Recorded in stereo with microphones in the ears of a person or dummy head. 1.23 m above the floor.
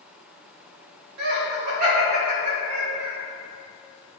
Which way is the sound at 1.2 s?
60° right (ahead or behind).